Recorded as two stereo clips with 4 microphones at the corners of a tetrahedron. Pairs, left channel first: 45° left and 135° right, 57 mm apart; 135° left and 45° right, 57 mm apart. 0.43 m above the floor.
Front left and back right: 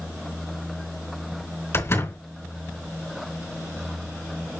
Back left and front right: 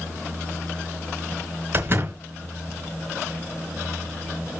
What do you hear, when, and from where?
1.7 s a door slam: 5° left, 3.5 m